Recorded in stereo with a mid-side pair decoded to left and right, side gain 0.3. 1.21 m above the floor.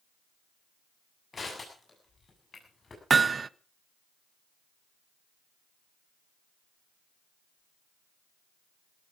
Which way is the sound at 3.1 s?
50° right.